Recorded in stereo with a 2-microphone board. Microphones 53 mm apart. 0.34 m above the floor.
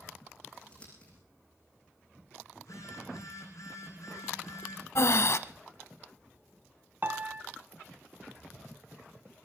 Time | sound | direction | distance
0.5 | scissors | 20° left (ahead or behind) | 7 m
2.6 | a phone buzzing | 70° left (ahead or behind) | 7 m
5.0 | breathing | 60° left (ahead or behind) | 0.7 m
7.0 | a piano | 40° right (ahead or behind) | 0.9 m